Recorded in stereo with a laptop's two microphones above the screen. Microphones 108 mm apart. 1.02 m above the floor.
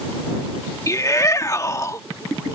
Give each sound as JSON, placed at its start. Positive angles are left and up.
{"t": 0.9, "sound": "a shout", "side_deg": 30}